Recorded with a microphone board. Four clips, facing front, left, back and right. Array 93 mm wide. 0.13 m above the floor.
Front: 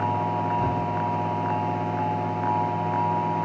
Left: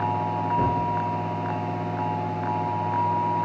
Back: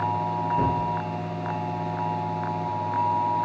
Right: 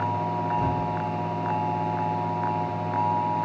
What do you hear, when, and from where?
0.6 s a gunshot: 135° left, 6.5 m